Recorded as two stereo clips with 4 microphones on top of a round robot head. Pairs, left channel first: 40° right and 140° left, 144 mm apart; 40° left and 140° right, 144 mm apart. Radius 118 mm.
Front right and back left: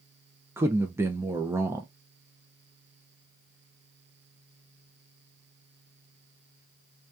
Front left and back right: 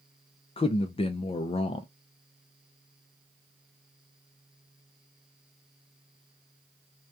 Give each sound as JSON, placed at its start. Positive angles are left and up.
{"t": 0.6, "sound": "a man speaking", "azimuth_deg": 70, "distance_m": 0.5}